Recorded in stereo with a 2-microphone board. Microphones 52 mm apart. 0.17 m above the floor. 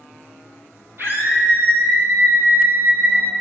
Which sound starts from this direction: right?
A scream, at 1.0 s.